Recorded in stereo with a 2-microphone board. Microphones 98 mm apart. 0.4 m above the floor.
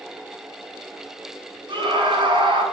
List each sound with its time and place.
1.7 s a scream: 50° right (ahead or behind), 3.5 m